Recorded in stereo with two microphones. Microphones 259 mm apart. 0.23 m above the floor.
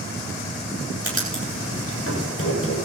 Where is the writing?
55° left (ahead or behind), 8.5 m.